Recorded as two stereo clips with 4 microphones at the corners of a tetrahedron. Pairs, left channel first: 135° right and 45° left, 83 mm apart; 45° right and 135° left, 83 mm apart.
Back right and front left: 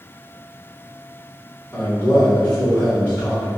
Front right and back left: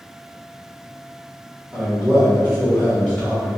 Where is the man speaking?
145° left, 1.4 m; by 3.5 s 105° right, 1.4 m.